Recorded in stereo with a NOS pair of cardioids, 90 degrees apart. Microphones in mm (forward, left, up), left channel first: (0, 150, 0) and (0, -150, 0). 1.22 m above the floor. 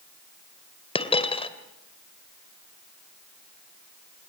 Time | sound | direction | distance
0.9 | a dropped coin | 20° left | 2.5 m